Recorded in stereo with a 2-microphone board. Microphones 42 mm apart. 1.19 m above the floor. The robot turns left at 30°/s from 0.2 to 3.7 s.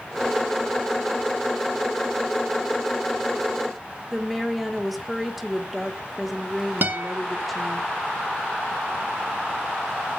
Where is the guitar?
45° right (ahead or behind), 1.8 m.